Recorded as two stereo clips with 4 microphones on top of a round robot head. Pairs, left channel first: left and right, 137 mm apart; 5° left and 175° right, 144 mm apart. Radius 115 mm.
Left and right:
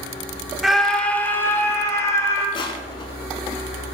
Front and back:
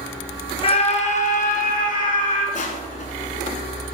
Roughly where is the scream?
Ahead.